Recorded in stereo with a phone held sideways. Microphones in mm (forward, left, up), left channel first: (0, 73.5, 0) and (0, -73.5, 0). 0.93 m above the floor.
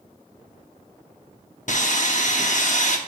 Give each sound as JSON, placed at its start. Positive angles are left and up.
{"t": 1.7, "sound": "sawing", "side_deg": 60, "distance_m": 0.8}